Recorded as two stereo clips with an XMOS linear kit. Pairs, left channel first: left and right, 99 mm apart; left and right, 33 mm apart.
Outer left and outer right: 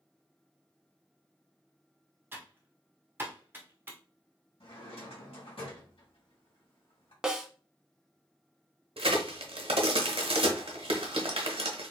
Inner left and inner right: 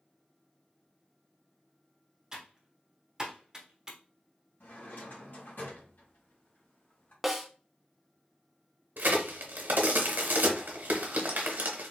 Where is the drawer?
75° left (ahead or behind), 1.9 m.